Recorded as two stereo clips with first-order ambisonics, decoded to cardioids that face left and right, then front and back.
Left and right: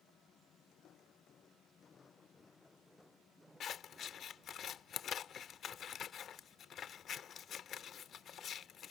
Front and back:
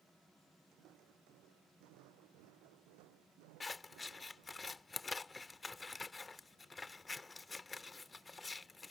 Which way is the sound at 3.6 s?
70° left.